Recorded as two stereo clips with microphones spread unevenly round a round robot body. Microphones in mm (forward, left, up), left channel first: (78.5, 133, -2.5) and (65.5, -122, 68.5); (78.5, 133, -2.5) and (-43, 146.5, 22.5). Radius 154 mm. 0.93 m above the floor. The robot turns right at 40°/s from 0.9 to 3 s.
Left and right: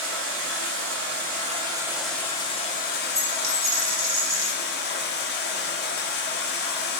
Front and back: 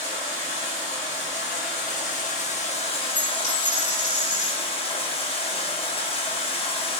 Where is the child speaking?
I don't hear a child speaking.